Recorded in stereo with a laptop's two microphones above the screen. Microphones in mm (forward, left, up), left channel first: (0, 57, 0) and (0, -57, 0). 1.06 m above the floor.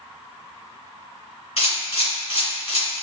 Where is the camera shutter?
60° left (ahead or behind), 1.6 m.